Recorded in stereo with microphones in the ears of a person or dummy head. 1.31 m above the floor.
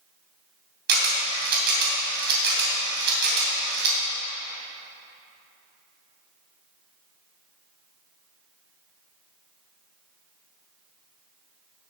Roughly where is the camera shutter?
Right.